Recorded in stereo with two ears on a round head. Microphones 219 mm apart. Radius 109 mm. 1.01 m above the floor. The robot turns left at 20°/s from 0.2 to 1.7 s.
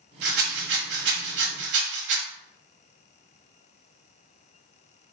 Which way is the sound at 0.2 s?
45° right (ahead or behind).